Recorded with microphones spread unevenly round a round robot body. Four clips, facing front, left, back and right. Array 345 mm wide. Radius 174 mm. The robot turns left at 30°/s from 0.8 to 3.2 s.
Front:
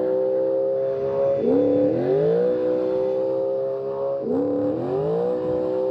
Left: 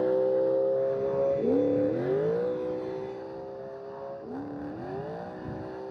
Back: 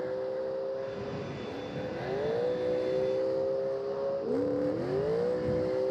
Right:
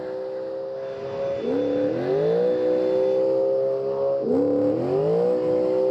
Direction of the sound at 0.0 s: 20° left.